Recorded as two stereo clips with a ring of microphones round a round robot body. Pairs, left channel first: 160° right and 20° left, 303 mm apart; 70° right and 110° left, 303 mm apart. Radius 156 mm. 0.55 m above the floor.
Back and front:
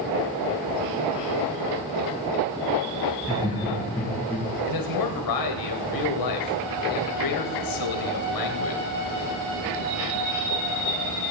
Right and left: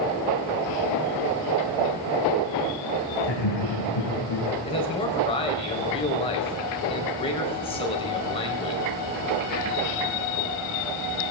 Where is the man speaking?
140° right, 2.5 m.